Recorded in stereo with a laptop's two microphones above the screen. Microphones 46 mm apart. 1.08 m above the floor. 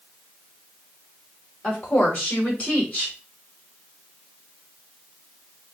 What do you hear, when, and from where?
1.6 s a woman speaking: 25° left (ahead or behind), 3.5 m